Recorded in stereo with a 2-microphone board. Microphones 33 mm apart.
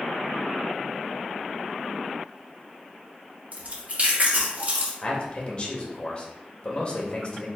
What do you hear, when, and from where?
3.5 s chewing: 50° right (ahead or behind), 1.4 m
5.0 s a man speaking: 30° left (ahead or behind), 1.3 m